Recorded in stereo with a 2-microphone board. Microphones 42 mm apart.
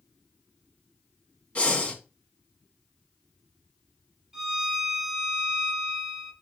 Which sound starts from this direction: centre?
A violin, at 4.3 s.